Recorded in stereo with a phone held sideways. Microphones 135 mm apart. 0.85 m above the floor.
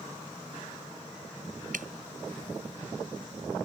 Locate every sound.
1.7 s dripping: 75° right (ahead or behind)